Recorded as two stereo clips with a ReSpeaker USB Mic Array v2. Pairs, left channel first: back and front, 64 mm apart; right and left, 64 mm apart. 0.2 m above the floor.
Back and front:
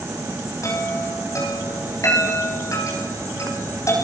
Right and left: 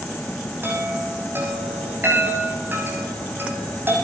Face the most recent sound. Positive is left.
turn(degrees=145)